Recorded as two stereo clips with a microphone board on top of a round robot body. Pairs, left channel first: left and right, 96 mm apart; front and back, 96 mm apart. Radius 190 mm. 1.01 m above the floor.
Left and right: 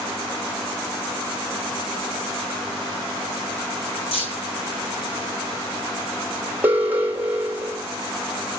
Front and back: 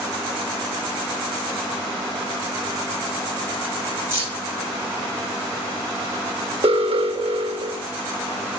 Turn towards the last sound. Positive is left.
turn(degrees=-165)